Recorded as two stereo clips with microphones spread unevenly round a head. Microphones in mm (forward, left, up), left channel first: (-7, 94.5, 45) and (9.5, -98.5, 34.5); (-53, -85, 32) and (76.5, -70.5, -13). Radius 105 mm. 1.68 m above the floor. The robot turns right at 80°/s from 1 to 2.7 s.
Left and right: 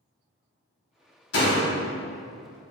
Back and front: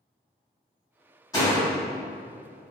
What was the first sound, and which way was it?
A door slam, 125° left.